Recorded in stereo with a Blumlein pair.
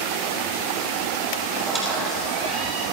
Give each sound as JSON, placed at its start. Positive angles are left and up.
{"t": 1.6, "sound": "a squeak", "azimuth_deg": -15, "distance_m": 5.5}